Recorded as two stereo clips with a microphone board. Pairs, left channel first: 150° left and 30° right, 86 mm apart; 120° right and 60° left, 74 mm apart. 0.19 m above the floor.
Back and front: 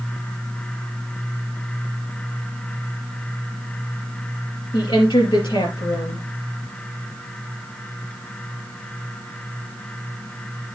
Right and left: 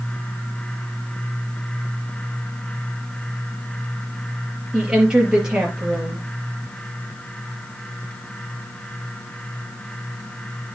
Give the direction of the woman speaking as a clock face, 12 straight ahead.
7 o'clock.